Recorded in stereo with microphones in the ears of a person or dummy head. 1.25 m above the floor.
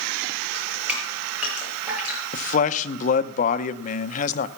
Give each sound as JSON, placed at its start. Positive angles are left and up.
{"t": 0.5, "sound": "dripping", "side_deg": -5, "distance_m": 5.5}
{"t": 2.3, "sound": "a man speaking", "side_deg": 45, "distance_m": 0.7}